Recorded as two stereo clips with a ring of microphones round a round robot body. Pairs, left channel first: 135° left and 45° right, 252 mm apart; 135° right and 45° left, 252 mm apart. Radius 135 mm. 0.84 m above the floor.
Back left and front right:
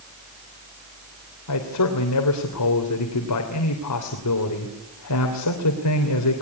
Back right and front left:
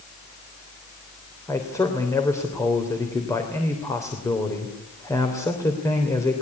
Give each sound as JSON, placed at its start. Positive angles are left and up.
{"t": 1.5, "sound": "a man speaking", "azimuth_deg": 145, "distance_m": 3.0}